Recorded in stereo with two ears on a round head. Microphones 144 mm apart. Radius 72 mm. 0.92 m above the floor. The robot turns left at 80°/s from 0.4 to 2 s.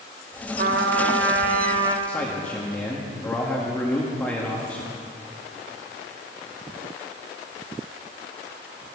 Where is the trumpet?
55° right, 1.0 m; by 2.0 s 165° right, 1.0 m.